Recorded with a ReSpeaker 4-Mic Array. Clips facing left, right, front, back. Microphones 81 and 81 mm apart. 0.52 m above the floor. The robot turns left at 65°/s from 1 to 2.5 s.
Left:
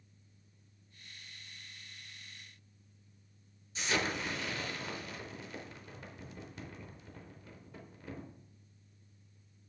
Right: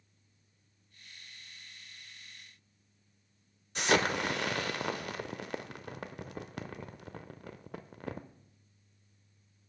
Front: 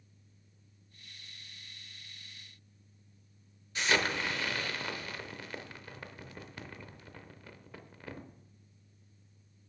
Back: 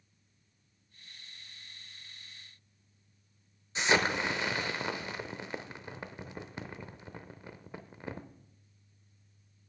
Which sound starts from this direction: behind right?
An explosion, at 3.8 s.